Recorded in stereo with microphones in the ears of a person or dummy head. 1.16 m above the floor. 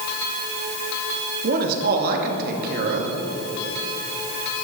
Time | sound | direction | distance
1.4 | a man speaking | 55° right (ahead or behind) | 2.5 m